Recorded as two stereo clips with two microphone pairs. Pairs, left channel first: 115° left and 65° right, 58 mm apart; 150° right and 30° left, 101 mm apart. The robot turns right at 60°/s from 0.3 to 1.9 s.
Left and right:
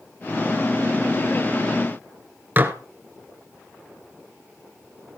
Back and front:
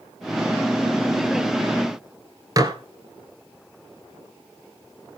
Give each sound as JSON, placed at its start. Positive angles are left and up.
{"t": 2.6, "sound": "dishes clattering", "azimuth_deg": -15, "distance_m": 1.2}